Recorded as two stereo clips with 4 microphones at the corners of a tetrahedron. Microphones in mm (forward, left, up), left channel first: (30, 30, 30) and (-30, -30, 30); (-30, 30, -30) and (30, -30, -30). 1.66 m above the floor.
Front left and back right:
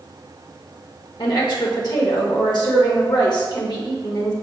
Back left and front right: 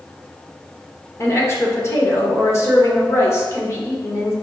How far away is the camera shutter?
No camera shutter in this recording.